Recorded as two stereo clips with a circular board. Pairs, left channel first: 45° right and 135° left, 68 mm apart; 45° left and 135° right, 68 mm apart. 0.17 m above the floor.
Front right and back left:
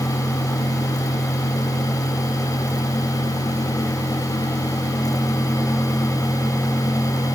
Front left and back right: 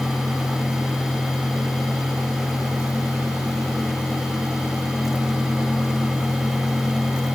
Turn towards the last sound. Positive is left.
No sound to turn to.